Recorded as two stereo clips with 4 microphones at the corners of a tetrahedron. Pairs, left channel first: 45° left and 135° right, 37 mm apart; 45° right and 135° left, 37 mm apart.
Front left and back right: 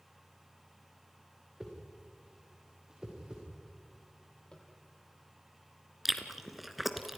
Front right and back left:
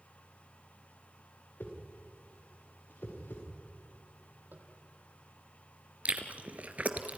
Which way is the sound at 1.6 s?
65° right.